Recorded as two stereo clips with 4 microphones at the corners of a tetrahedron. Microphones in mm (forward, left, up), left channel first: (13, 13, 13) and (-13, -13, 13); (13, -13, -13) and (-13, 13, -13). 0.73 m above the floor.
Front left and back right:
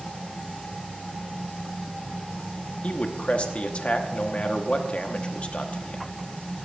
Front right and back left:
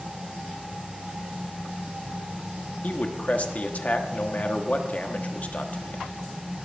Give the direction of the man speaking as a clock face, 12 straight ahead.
12 o'clock.